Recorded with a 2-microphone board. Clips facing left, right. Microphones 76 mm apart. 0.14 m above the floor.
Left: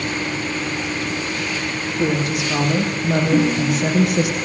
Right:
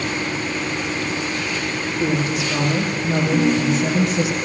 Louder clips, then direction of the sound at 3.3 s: Right 2 dB; 70° left (ahead or behind).